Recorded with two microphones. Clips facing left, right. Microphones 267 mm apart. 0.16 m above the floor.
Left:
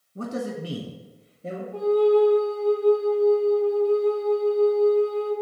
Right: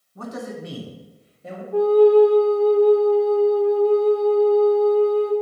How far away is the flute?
About 1.4 m.